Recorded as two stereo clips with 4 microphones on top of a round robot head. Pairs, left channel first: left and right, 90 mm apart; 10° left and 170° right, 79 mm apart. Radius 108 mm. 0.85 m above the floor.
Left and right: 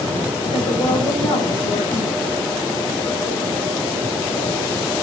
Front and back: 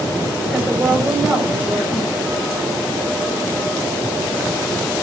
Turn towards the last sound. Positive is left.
turn(degrees=120)